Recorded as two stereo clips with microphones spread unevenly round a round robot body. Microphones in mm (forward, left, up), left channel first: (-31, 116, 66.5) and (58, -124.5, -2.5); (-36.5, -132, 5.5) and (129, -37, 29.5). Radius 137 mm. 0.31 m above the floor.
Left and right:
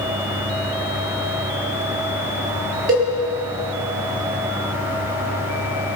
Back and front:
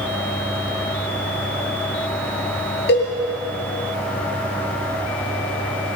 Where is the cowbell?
125° right, 6.5 m.